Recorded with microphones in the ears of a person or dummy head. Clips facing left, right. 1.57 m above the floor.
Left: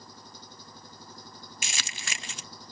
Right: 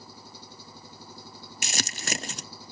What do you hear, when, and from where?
0.0 s an engine running: centre (ahead or behind)
1.6 s crumpling: 35° right (ahead or behind)